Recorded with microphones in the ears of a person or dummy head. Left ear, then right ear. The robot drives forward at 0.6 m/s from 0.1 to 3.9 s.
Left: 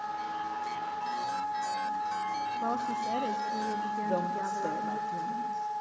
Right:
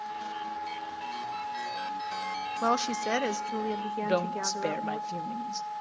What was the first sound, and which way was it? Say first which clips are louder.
A woman speaking: right 8 dB; 75° right (ahead or behind).